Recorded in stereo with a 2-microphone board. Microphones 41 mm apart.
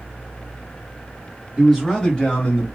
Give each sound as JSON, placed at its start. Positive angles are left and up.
{"t": 1.6, "sound": "a man speaking", "side_deg": -10, "distance_m": 1.4}